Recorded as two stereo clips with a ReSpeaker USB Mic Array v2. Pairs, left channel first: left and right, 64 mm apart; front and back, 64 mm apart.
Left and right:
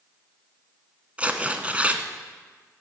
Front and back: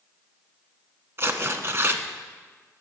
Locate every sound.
1.2 s tearing paper: 150° right, 0.9 m